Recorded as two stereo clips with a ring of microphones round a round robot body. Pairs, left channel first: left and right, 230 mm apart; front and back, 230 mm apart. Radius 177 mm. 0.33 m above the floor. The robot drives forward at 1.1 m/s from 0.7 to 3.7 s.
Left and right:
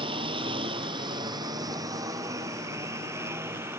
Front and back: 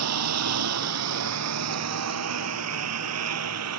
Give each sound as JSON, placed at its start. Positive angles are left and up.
{"t": 0.0, "sound": "a lawn mower", "azimuth_deg": -165}